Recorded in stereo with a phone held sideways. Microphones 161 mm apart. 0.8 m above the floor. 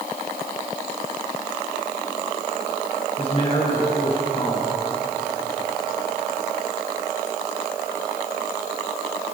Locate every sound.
3.2 s a man speaking: 35° left (ahead or behind), 9.5 m